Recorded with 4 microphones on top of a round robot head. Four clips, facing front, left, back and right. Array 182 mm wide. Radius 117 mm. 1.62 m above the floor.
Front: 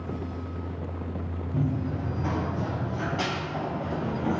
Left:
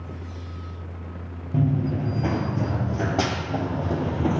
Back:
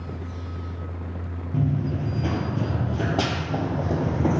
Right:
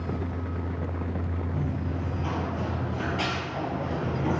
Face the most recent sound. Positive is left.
turn(degrees=150)